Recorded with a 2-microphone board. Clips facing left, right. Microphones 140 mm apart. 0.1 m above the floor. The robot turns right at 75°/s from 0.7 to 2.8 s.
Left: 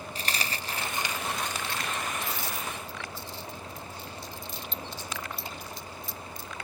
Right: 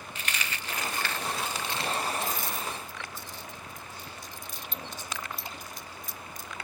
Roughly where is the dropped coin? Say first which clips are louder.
Left 2 dB; left.